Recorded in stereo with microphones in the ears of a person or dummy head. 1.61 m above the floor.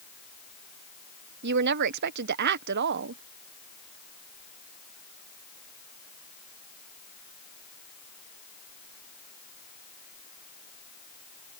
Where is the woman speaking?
55° right (ahead or behind).